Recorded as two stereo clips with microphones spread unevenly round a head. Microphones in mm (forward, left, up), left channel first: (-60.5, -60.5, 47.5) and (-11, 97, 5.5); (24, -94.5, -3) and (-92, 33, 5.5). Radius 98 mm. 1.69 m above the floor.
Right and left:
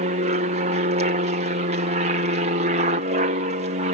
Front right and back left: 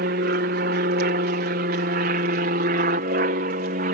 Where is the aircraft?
100° left; by 3.9 s 95° left.